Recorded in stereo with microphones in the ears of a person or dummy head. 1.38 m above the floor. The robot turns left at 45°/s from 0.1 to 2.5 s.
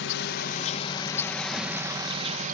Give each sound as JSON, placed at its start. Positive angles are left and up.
{"t": 0.0, "sound": "an insect", "azimuth_deg": 70}